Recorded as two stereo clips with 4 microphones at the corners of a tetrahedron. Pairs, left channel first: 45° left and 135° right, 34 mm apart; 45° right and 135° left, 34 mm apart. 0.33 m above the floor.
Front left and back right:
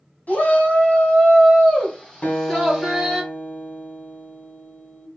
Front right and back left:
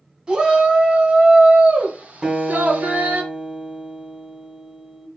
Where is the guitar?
70° left, 1.9 m.